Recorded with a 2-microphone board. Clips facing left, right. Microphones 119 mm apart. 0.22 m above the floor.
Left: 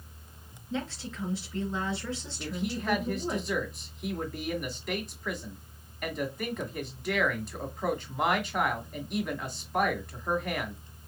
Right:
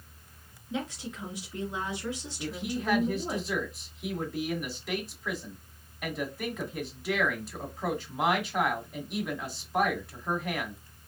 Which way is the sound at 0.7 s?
10° right (ahead or behind).